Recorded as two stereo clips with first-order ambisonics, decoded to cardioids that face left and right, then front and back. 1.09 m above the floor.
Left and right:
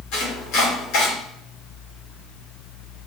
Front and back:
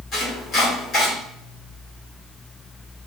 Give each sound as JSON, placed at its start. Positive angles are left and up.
{"t": 0.1, "sound": "chopping", "azimuth_deg": 60, "distance_m": 3.5}